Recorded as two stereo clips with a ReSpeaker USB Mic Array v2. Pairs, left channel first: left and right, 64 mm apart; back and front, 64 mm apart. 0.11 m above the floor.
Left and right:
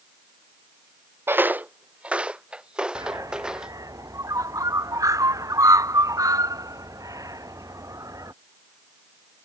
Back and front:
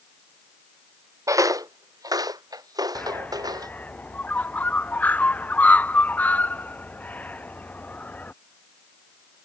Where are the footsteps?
35° right; by 3.7 s 10° right.